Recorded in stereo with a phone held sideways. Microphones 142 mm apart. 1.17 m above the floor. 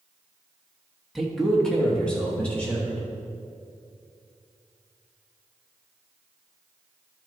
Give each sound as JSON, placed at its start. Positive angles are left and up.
{"t": 1.1, "sound": "a man speaking", "side_deg": 0, "distance_m": 1.3}